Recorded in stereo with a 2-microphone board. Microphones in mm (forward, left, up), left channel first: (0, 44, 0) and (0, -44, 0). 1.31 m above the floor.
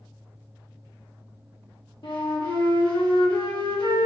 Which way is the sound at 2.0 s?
60° left (ahead or behind).